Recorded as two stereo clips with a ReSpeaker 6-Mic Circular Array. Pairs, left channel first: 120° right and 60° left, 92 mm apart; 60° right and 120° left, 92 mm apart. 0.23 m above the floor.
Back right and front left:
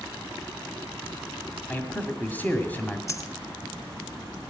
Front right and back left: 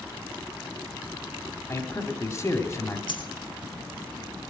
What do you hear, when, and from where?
1.7 s a man speaking: 65° right, 1.7 m
3.1 s a dropped coin: 65° right, 1.6 m